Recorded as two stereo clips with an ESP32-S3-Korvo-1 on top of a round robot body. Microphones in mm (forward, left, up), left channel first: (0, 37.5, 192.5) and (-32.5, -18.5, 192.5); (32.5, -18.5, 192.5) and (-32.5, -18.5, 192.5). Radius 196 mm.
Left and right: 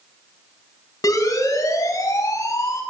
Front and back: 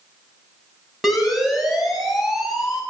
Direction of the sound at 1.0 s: 90° left.